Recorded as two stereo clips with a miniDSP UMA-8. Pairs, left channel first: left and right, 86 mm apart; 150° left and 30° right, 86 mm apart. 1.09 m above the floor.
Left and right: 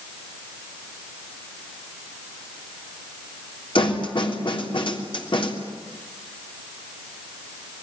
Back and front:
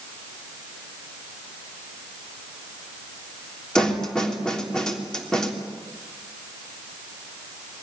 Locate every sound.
3.8 s a snare drum: 65° left, 3.5 m